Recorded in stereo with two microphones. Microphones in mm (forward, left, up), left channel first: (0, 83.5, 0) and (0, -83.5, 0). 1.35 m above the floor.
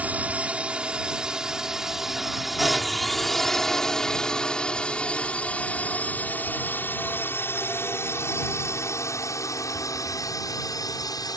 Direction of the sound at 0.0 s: 10° right (ahead or behind).